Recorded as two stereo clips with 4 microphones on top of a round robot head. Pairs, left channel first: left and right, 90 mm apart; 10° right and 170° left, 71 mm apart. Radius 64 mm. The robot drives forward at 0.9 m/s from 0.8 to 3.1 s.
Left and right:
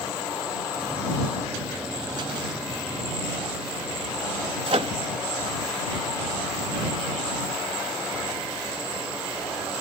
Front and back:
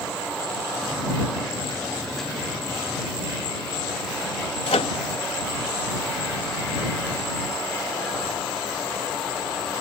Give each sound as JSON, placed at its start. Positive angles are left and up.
{"t": 4.7, "sound": "a microwave", "azimuth_deg": -40}